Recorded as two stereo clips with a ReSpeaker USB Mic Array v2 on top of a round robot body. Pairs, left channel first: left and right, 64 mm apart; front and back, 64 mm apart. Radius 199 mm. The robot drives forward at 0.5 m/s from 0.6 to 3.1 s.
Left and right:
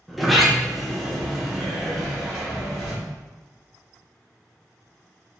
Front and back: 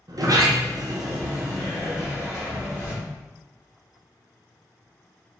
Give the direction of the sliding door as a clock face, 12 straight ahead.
6 o'clock.